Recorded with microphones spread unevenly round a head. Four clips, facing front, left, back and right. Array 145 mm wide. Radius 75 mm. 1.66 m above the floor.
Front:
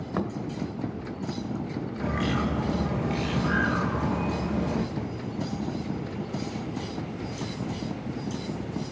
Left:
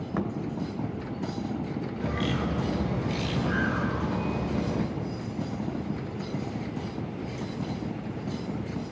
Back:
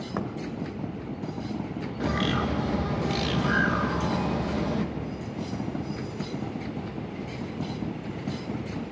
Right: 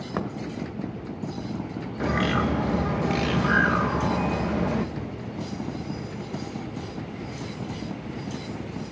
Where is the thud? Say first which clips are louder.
Right 1 dB, front 3 dB; 95° right, 1.5 m.